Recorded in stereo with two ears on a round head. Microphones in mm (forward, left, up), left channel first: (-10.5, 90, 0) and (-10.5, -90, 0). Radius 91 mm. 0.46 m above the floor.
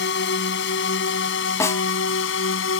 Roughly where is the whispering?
No whispering in this recording.